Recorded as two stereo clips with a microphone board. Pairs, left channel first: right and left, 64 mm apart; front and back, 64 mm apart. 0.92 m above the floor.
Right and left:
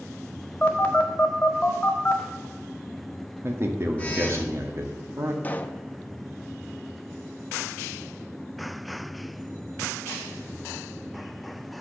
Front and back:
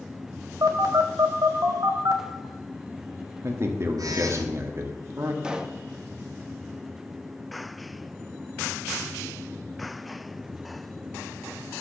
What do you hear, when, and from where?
0.6 s a phone buzzing: 160° right, 1.6 m
3.4 s a man speaking: 135° left, 1.5 m
5.4 s a pop: 115° right, 0.7 m